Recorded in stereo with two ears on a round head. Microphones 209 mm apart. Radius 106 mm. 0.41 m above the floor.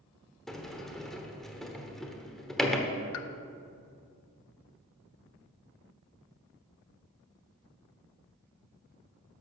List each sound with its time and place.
0.5 s a sliding door: centre (ahead or behind), 0.9 m
3.1 s a pop: 65° left (ahead or behind), 0.6 m